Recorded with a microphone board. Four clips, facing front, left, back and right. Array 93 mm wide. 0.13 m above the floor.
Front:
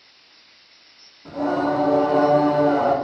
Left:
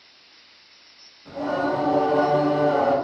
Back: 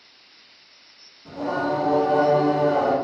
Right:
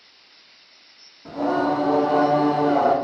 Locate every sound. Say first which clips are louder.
1.2 s singing: right 3 dB, front 3 dB; 60° right, 0.9 m